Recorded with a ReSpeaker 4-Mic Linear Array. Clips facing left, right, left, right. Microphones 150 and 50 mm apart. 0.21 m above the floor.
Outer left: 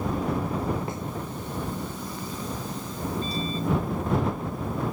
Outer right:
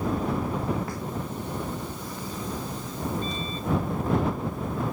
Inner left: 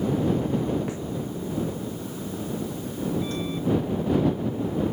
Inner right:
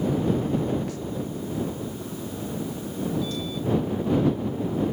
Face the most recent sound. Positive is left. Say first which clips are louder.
# outer left 2 dB, inner left 1 dB
turn(degrees=35)  # may be behind; listen again after turning